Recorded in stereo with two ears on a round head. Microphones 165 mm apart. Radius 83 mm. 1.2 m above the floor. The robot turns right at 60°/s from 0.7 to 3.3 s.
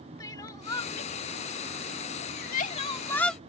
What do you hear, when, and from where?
0.2 s crying: 20° left (ahead or behind); by 3.4 s 5° left (ahead or behind)